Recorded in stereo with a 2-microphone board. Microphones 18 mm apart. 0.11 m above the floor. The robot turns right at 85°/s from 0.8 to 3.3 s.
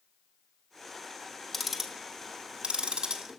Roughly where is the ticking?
Centre.